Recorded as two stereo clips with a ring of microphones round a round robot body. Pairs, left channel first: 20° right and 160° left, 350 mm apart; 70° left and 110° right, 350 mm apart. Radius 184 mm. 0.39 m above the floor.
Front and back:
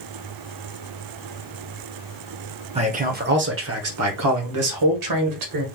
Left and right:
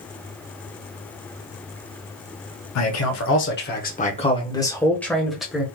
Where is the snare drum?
No snare drum in this recording.